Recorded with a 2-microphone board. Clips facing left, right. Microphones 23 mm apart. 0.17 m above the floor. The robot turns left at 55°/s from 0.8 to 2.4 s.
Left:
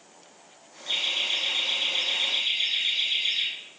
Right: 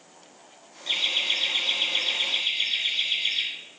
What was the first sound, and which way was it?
Laughter, 20° right (ahead or behind).